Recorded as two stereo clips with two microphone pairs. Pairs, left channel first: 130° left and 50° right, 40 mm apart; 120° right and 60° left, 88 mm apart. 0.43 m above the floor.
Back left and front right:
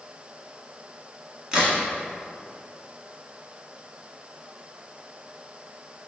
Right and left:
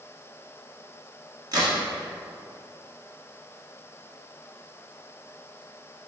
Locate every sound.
1.5 s a crack: 20° left, 1.3 m